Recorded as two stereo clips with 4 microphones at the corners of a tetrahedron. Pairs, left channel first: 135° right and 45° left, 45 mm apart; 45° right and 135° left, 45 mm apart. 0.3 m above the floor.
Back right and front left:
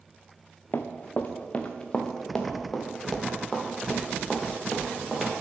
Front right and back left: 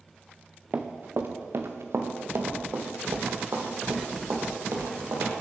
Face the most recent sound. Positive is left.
turn(degrees=130)